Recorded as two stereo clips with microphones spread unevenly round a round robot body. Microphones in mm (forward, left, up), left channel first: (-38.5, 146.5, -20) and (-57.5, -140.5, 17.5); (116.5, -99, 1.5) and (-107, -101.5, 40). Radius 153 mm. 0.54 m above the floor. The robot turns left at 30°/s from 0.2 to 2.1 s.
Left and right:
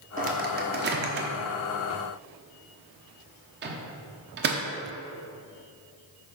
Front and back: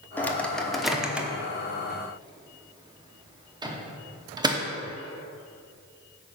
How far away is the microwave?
About 1.0 m.